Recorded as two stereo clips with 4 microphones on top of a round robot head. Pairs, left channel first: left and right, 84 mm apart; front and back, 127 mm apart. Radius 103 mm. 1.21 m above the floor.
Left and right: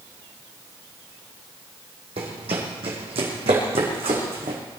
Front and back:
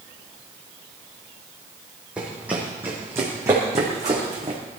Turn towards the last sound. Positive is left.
turn(degrees=-110)